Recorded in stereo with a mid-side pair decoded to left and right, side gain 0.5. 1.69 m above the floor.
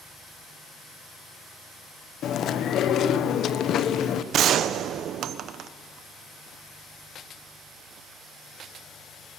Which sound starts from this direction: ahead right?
A gunshot, at 4.3 s.